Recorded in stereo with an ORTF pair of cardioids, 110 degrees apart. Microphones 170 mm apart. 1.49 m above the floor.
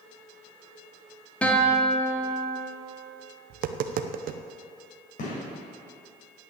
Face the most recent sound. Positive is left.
turn(degrees=55)